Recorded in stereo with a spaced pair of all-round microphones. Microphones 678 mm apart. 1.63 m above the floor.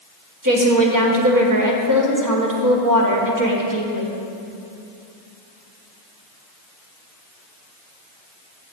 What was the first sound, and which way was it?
A woman speaking, 25° right (ahead or behind).